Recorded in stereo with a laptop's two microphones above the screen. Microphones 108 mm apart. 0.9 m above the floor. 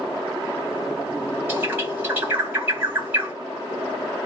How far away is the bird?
About 1.9 m.